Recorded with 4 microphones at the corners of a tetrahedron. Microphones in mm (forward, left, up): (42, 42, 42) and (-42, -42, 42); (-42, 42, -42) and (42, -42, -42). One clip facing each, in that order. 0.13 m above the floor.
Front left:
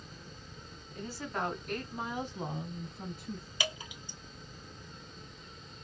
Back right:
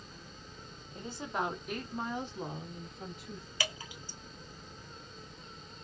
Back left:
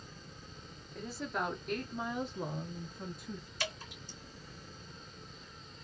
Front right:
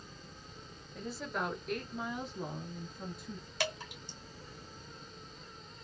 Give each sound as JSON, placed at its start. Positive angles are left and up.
{"t": 0.9, "sound": "a woman speaking", "azimuth_deg": -140, "distance_m": 1.1}
{"t": 3.6, "sound": "dripping", "azimuth_deg": -25, "distance_m": 2.0}